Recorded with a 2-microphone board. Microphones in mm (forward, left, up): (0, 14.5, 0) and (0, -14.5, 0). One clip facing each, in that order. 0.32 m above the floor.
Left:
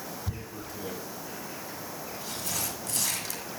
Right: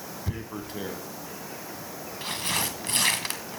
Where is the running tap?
No running tap in this recording.